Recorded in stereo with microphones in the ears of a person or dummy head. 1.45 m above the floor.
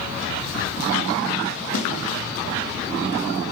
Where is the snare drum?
65° left (ahead or behind), 6 m.